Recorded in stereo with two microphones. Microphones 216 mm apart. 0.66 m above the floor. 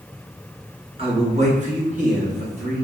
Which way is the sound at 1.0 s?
30° right (ahead or behind).